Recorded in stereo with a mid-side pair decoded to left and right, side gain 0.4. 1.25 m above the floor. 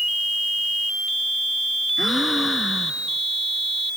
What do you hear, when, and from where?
2.0 s a gasp: 20° left